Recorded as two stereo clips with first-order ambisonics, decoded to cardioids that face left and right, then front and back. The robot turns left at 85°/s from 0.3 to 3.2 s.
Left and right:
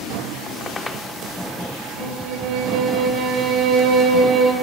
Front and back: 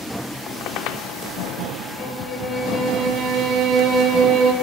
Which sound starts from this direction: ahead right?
A violin, at 2.0 s.